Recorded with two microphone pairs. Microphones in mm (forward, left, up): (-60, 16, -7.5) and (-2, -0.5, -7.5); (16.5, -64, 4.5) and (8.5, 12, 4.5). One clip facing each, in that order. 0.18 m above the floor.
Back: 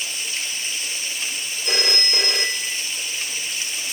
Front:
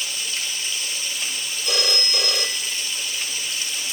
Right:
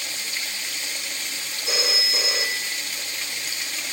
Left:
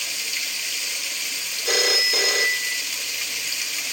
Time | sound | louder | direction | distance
0.0 | running water | even, even | 135° right | 2.5 m
1.6 | a phone ringing | back 1 dB, left 5 dB | 125° left | 1.8 m